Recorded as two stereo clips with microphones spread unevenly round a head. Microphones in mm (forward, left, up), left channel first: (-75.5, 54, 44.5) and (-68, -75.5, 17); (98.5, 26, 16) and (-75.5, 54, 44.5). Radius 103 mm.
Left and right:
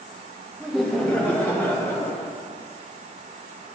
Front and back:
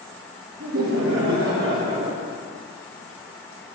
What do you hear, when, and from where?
0.6 s laughter: 170° right, 1.2 m; by 2.3 s 160° left, 1.9 m